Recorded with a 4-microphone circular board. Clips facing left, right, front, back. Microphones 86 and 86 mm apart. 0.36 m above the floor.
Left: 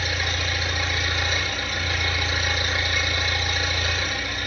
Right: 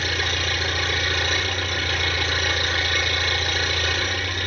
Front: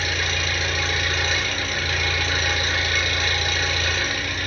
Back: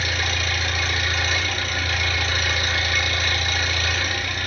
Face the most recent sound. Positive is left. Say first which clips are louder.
# right 2 dB, even
turn(degrees=-90)